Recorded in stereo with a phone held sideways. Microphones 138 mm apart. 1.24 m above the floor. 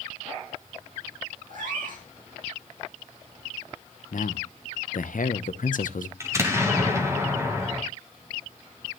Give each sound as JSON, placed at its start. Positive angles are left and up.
{"t": 1.5, "sound": "a cat meowing", "side_deg": -75, "distance_m": 6.5}
{"t": 4.1, "sound": "a man speaking", "side_deg": 75, "distance_m": 0.8}
{"t": 6.2, "sound": "an explosion", "side_deg": -20, "distance_m": 2.5}